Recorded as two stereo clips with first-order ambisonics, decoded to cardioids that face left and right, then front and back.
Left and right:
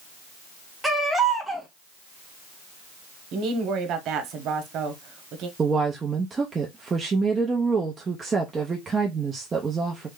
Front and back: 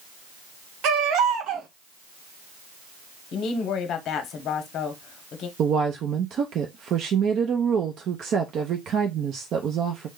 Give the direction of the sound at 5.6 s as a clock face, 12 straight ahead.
5 o'clock.